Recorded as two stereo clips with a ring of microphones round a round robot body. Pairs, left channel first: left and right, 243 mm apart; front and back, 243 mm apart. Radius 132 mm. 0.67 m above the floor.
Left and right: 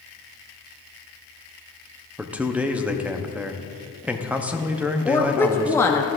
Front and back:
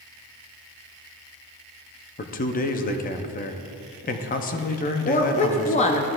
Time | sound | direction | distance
2.2 | a man speaking | 10° right | 0.5 m
5.0 | a woman speaking | 20° left | 0.5 m